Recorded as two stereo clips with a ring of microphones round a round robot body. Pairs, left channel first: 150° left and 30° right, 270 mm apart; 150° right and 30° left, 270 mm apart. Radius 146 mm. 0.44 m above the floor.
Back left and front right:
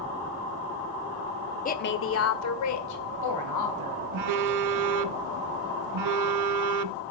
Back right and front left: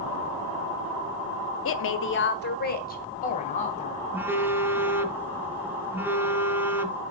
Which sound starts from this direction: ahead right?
A phone buzzing, at 4.1 s.